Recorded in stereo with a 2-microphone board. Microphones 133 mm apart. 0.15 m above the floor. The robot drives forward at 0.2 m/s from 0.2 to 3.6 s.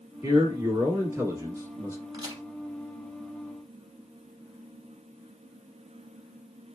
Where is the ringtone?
I don't hear a ringtone.